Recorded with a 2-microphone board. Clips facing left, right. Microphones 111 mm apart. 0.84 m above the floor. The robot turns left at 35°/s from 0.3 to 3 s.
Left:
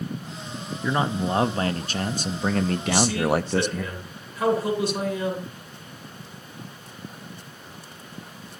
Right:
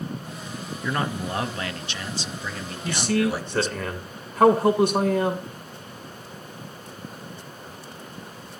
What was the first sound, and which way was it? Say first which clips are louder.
A man speaking: left 3 dB; 165° left.